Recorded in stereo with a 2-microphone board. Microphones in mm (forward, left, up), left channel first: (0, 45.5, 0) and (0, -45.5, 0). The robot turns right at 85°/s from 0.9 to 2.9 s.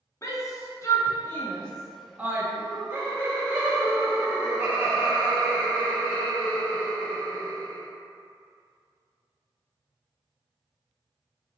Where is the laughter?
85° right, 0.6 m; by 7.8 s 55° right, 0.6 m.